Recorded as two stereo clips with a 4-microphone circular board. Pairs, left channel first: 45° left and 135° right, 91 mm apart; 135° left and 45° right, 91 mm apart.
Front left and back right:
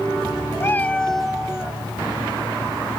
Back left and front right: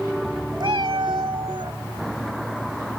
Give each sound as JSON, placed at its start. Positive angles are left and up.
{"t": 0.6, "sound": "a cat meowing", "azimuth_deg": -15}